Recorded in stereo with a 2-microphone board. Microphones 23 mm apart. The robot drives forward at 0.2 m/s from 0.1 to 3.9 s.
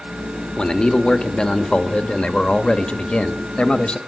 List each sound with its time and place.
0.6 s a man speaking: 40° left (ahead or behind), 1.4 m; by 4.0 s 50° left (ahead or behind), 1.1 m